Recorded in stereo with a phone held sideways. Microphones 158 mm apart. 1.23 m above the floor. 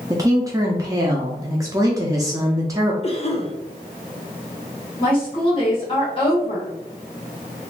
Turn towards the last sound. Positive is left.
turn(degrees=35)  # may be behind; listen again after turning